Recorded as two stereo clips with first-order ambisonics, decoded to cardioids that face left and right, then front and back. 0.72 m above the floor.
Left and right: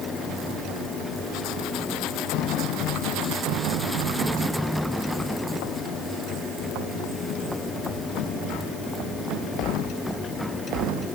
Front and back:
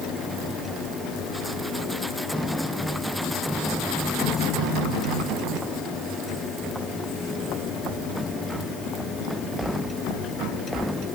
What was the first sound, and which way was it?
Only background noise.